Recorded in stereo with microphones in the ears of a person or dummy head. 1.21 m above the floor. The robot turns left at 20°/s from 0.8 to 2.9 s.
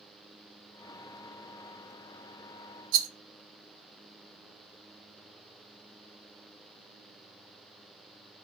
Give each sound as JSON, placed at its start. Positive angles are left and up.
{"t": 2.9, "sound": "a rattle", "side_deg": -70, "distance_m": 0.8}